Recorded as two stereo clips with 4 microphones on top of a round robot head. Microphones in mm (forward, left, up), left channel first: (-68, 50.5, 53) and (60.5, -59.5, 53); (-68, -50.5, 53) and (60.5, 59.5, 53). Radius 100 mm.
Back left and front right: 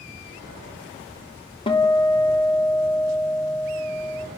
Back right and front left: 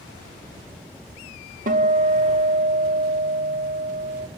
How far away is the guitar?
About 2.5 m.